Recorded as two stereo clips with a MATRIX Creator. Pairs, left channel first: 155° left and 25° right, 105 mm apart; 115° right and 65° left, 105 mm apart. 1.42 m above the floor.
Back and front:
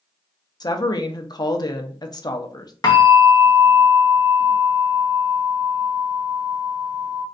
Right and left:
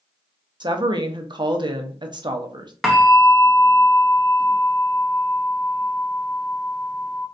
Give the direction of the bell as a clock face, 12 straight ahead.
7 o'clock.